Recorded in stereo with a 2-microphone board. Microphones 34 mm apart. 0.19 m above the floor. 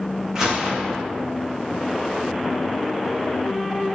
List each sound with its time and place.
0.3 s a gunshot: 15° right (ahead or behind), 5 m